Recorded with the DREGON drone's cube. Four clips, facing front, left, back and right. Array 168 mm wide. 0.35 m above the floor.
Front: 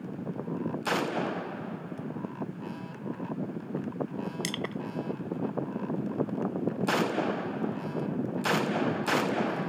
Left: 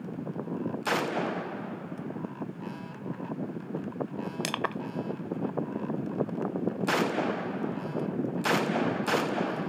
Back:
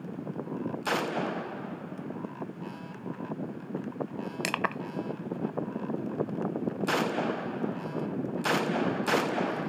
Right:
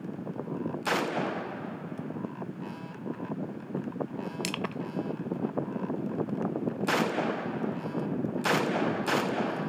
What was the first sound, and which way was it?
Crushing, 150° left.